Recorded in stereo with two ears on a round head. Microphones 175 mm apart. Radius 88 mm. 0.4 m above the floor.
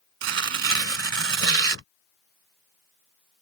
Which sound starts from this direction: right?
Tearing paper, at 0.2 s.